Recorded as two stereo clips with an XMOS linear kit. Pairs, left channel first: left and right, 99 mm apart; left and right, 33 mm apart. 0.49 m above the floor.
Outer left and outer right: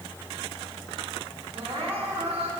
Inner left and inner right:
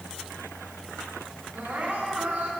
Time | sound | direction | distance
1.5 | crying | 80° right | 3.5 m